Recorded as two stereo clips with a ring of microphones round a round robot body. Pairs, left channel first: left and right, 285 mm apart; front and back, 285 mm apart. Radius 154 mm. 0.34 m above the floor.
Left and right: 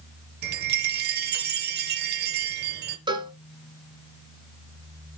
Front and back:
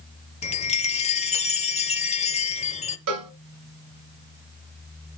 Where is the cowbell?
165° right, 1.1 m.